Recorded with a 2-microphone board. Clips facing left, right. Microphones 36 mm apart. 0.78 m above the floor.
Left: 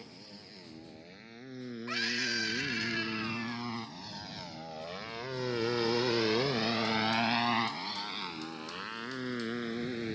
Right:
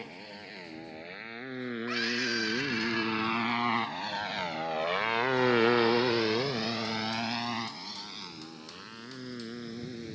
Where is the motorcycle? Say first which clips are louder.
Right 7 dB; 45° right (ahead or behind); by 10.2 s 30° left (ahead or behind).